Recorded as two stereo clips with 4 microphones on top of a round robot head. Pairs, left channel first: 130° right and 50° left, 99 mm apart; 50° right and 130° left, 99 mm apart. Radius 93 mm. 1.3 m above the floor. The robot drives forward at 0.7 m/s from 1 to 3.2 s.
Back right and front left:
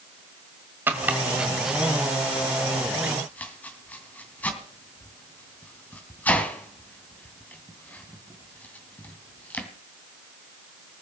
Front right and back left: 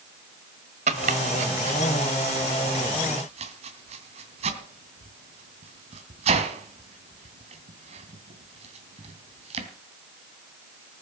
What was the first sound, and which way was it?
Chopping, 120° left.